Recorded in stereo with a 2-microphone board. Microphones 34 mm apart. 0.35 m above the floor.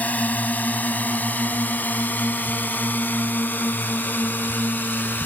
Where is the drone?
50° left (ahead or behind); by 5.3 s 70° left (ahead or behind).